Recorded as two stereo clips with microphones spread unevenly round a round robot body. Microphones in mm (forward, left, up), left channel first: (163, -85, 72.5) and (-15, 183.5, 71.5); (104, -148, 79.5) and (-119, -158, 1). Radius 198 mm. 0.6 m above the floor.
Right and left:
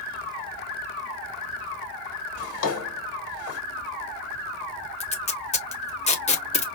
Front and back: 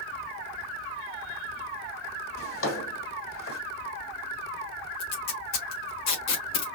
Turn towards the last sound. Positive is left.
turn(degrees=15)